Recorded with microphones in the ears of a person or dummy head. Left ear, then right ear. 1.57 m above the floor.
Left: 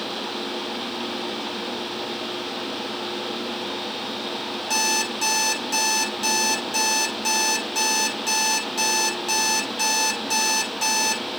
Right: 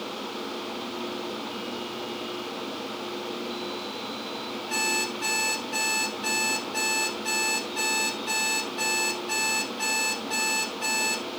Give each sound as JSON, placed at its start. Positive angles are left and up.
{"t": 4.7, "sound": "an alarm clock", "side_deg": 70, "distance_m": 3.5}